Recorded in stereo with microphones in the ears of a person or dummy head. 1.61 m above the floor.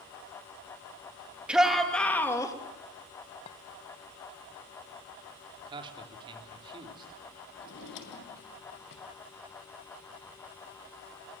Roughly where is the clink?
Left.